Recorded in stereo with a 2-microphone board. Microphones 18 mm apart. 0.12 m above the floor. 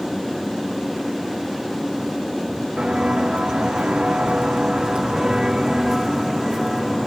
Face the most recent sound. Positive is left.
turn(degrees=-10)  # may be behind; listen again after turning